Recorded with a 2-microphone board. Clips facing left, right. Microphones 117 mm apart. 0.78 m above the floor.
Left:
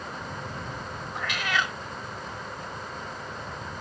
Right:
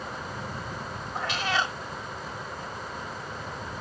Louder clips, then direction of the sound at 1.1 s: Right 1 dB; 30° right (ahead or behind).